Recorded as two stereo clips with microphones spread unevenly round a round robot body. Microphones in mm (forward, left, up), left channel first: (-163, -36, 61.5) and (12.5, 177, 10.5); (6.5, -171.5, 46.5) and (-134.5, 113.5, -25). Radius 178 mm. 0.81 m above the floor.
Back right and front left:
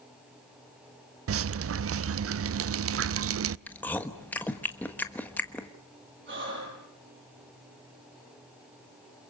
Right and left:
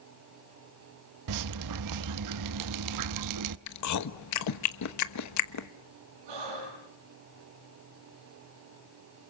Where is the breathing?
100° left, 9.5 m.